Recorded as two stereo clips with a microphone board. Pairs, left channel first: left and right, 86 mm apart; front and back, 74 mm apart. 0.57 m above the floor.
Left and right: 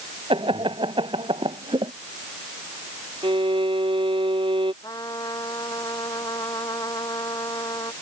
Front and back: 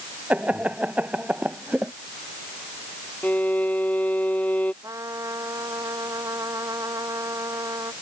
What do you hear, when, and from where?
0.3 s laughter: 105° right
3.2 s a violin: 70° right
4.8 s a trumpet: 135° left